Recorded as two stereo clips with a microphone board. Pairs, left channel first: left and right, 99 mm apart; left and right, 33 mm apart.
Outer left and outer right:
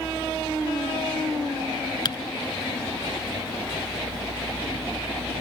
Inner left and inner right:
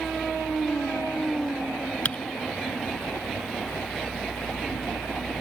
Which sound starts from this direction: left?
Typing on a keyboard, at 2.0 s.